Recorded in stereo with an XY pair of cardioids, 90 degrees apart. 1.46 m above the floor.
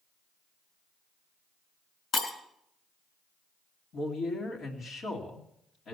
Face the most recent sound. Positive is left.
turn(degrees=65)